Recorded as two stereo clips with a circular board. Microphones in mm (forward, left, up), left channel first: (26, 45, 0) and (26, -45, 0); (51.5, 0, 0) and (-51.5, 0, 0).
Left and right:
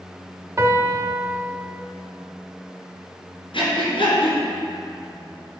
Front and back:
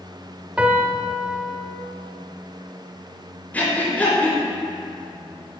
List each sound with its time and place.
0.6 s a piano: 110° right, 1.0 m
3.5 s breathing: 75° left, 3.5 m